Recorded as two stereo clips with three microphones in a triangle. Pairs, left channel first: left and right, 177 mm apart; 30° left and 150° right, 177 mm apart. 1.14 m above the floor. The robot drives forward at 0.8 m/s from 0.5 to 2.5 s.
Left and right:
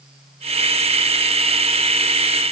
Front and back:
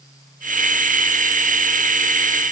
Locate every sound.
Only background noise.